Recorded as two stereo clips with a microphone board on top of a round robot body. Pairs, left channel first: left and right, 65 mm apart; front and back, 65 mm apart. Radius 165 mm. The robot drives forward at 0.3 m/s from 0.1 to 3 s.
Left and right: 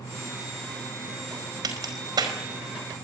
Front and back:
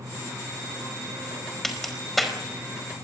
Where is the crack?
85° right, 5 m; by 2.4 s 90° right, 5 m.